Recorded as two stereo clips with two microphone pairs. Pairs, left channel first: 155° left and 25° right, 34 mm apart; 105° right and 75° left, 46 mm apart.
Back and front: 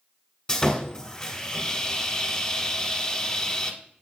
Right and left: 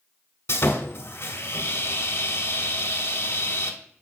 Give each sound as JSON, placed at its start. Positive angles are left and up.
{"t": 0.5, "sound": "sawing", "azimuth_deg": -130, "distance_m": 1.6}